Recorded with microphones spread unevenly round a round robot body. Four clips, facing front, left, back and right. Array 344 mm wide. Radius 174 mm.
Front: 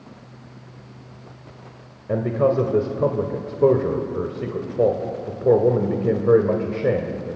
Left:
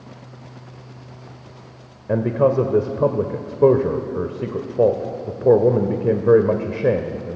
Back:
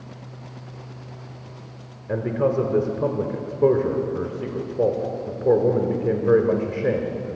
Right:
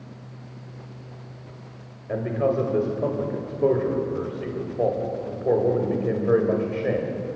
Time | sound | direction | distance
2.1 | a man speaking | 80° left | 1.6 m